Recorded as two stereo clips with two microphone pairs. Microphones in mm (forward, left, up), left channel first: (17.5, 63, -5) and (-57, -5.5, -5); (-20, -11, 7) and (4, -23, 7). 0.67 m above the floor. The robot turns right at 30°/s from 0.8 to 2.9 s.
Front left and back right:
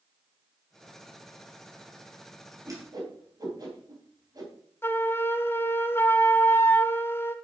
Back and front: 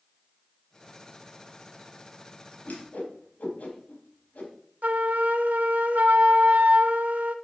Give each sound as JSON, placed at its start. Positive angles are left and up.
{"t": 2.6, "sound": "a whoosh", "azimuth_deg": 165, "distance_m": 3.5}
{"t": 4.8, "sound": "a flute", "azimuth_deg": -25, "distance_m": 0.8}